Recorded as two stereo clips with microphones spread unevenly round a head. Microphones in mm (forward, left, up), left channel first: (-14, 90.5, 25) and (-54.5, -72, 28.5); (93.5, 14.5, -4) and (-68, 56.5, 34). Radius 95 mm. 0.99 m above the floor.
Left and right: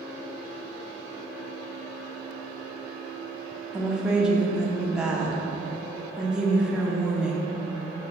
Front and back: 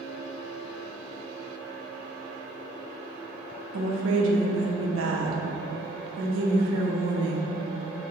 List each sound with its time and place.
3.7 s a woman speaking: 170° left, 0.7 m